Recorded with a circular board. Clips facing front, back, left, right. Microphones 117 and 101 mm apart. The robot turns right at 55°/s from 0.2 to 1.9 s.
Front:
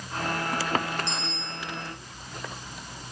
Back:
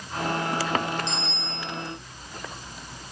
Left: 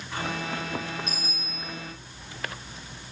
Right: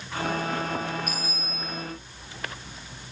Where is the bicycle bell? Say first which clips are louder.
Back 2 dB, right 3 dB; 25° left, 8.5 m; by 1.8 s 70° left, 8.5 m.